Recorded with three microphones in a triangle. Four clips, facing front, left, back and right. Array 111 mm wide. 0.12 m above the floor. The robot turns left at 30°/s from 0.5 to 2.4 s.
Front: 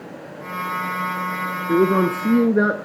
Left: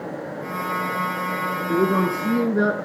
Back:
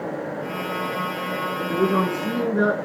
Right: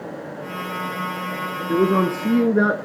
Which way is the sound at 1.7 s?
15° right.